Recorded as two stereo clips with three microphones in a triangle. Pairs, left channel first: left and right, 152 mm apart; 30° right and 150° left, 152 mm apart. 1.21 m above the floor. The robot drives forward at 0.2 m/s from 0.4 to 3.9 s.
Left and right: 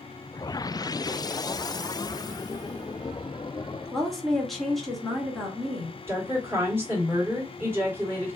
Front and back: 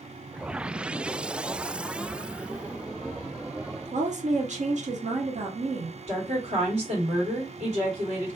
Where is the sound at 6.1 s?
165° right, 1.8 m.